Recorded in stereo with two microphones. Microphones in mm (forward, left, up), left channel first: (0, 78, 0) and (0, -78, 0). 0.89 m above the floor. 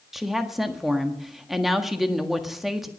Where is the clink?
I don't hear a clink.